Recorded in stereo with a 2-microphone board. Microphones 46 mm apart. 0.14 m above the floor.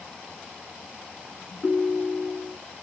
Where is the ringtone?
30° left (ahead or behind), 0.6 m.